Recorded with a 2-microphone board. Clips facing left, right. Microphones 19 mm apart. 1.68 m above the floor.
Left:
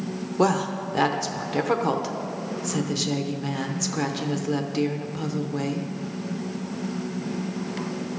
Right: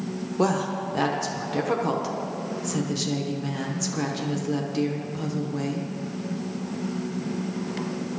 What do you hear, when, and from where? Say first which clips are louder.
0.4 s a woman speaking: left 2 dB; 10° left (ahead or behind), 0.9 m